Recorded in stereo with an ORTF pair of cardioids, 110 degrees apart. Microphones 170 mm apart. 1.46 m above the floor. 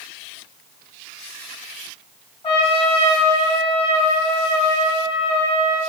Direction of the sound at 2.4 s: 35° left.